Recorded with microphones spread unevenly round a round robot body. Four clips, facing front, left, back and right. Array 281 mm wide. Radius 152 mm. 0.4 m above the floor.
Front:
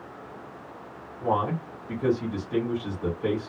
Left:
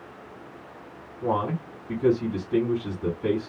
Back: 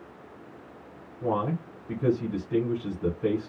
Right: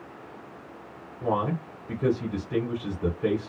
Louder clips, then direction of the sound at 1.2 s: Left 1 dB, front 2 dB; 110° right.